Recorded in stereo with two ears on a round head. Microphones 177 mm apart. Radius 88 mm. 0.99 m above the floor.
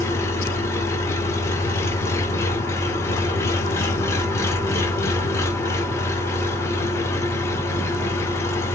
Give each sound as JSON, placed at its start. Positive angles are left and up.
{"t": 0.0, "sound": "an engine running", "side_deg": 15, "distance_m": 0.8}